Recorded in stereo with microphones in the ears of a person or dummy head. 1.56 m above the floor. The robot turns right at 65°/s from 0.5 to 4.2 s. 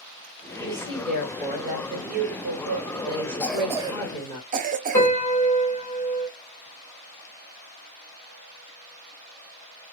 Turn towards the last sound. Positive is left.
turn(degrees=15)  # may be behind; listen again after turning